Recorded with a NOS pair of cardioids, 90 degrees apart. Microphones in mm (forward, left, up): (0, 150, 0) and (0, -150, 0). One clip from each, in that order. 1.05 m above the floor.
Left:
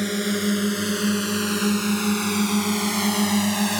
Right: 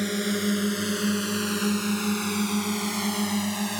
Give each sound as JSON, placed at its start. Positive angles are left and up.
{"t": 0.0, "sound": "a drone", "azimuth_deg": 15}